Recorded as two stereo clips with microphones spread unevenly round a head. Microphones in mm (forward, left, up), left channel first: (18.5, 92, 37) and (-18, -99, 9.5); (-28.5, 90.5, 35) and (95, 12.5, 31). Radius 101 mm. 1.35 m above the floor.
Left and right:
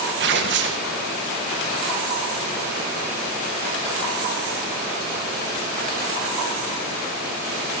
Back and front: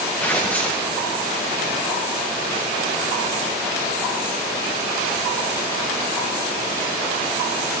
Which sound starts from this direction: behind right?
Tearing paper, at 0.2 s.